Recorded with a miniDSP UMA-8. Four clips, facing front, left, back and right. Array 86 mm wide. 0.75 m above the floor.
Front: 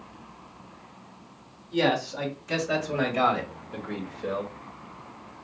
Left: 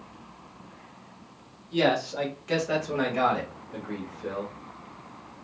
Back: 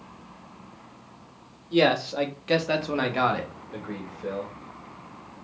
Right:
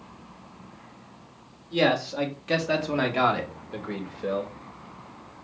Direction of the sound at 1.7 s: Straight behind.